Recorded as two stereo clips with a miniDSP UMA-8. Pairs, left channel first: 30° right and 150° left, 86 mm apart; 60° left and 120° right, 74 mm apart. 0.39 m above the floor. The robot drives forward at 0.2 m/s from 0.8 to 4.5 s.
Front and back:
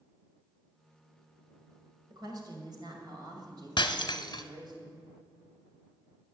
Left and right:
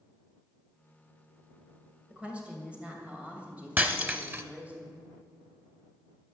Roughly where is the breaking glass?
Ahead right.